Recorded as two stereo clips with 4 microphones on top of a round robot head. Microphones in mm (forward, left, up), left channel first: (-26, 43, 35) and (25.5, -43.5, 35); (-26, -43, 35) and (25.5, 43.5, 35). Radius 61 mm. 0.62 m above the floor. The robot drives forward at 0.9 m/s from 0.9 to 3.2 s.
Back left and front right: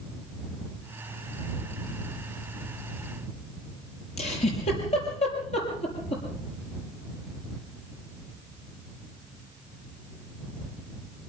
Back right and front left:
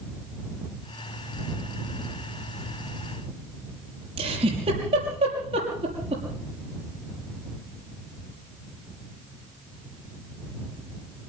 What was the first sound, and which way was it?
A giggle, 95° left.